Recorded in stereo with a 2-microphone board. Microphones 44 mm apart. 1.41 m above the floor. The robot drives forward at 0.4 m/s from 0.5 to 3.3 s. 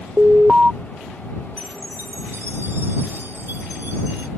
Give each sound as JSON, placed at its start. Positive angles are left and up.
{"t": 0.2, "sound": "an alarm", "side_deg": -25}
{"t": 1.6, "sound": "a chime", "side_deg": -70}